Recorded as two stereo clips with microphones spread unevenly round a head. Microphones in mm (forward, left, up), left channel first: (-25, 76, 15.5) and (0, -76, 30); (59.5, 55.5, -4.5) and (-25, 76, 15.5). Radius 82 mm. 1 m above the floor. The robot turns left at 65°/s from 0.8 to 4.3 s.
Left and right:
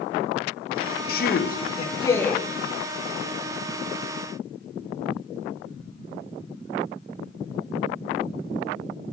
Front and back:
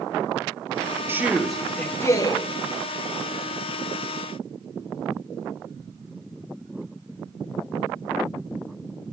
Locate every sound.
1.1 s a man speaking: 95° left, 0.9 m; by 2.4 s 10° left, 0.9 m